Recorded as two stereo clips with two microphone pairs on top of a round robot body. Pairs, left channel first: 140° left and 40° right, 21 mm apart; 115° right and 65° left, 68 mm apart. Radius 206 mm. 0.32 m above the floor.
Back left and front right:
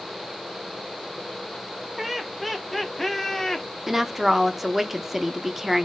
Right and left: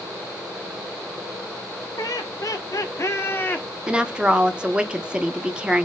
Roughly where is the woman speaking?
Ahead.